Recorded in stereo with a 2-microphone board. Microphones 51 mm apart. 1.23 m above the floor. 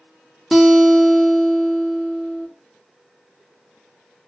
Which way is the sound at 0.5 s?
5° right (ahead or behind).